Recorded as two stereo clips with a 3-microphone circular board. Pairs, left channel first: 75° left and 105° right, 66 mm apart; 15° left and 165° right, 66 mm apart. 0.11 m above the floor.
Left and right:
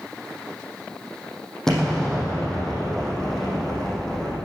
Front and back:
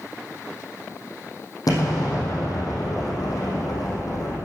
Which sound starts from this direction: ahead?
An explosion, at 1.7 s.